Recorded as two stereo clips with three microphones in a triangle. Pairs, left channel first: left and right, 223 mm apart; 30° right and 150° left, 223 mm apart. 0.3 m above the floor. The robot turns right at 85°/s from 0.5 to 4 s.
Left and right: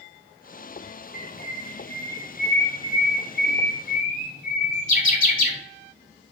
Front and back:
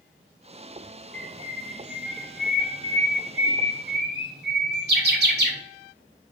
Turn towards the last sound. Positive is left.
turn(degrees=130)